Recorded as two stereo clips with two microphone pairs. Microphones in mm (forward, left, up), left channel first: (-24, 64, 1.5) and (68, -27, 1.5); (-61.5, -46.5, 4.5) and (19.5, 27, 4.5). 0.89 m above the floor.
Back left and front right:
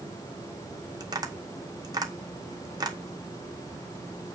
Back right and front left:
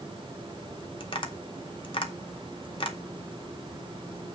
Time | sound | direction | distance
1.0 | tapping | 105° right | 1.8 m